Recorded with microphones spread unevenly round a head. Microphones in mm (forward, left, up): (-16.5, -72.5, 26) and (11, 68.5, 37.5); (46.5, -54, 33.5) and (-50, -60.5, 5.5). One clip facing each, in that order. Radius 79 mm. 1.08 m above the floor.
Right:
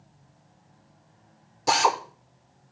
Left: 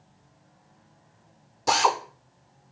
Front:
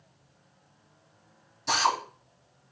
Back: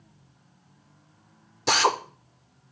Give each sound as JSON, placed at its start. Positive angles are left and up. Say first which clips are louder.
{"t": 1.7, "sound": "a drill", "louder": "even, back 3 dB", "azimuth_deg": 170, "distance_m": 1.3}